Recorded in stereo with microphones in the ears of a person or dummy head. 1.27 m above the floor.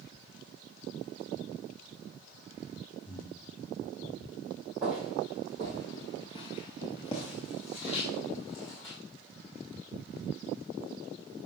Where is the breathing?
20° left (ahead or behind), 3.5 m.